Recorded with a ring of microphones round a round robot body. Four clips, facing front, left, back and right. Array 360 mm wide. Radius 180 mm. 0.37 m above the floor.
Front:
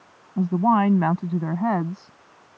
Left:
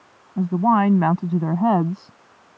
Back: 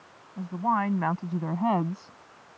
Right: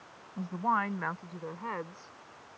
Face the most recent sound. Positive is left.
turn(degrees=90)